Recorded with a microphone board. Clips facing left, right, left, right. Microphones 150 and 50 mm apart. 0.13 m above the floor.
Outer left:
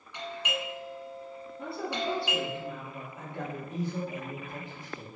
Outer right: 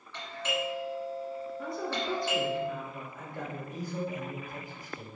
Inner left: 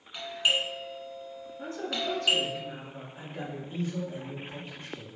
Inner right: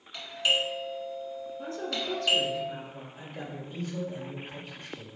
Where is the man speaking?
30° left (ahead or behind), 1.9 m.